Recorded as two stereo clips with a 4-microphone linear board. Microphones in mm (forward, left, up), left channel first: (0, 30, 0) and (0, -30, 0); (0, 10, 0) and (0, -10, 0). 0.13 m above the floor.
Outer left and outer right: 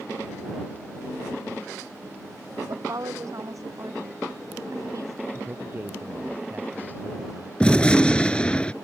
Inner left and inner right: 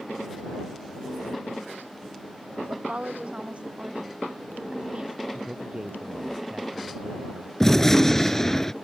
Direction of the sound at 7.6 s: 20° left (ahead or behind).